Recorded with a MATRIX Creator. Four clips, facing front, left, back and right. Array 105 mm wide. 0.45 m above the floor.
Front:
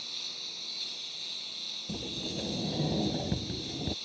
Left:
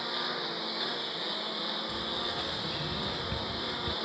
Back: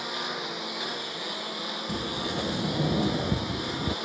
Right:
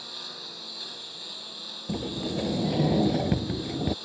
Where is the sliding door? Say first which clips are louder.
Right 5 dB, back 5 dB; 105° right.